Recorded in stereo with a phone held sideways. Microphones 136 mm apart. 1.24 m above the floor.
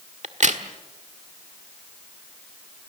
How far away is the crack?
About 1.4 m.